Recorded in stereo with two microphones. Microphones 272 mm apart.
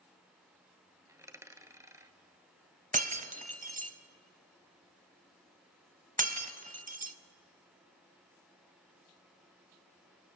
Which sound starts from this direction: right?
Breaking glass, at 2.9 s.